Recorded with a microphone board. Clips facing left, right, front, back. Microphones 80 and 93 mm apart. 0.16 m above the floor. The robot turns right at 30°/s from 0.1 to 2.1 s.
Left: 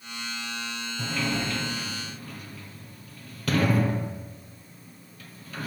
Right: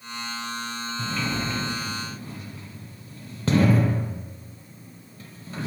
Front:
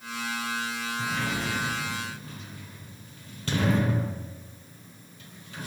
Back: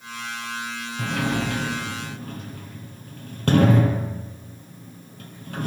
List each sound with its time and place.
1.0 s a sliding door: 175° left, 4 m; by 5.7 s 150° right, 4 m